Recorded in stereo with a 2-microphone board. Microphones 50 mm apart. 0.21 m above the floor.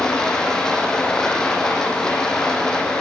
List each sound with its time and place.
0.0 s running water: 15° left (ahead or behind), 7.5 m